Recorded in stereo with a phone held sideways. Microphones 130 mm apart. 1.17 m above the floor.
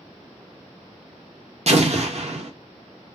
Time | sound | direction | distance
1.7 | an explosion | 55° right (ahead or behind) | 0.7 m